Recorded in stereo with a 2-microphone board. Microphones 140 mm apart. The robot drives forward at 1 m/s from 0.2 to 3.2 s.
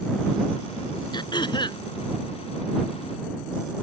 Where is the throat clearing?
35° left (ahead or behind).